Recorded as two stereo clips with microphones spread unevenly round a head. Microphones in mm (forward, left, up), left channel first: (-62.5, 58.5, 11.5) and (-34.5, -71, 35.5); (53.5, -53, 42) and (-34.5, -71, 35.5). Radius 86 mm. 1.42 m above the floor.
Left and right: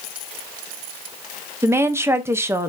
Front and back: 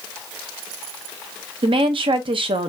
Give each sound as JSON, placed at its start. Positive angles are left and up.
{"t": 1.6, "sound": "a woman speaking", "azimuth_deg": -150, "distance_m": 0.7}